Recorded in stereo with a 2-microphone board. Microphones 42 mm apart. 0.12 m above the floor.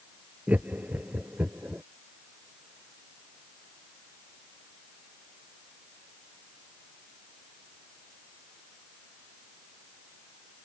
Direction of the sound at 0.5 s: 35° right (ahead or behind).